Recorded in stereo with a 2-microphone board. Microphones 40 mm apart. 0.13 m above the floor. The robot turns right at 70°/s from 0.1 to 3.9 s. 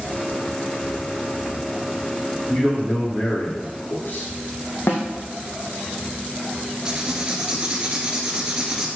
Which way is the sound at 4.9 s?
75° left (ahead or behind).